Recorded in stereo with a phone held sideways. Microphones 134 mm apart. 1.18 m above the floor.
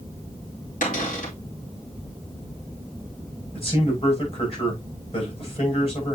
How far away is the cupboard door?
About 4 m.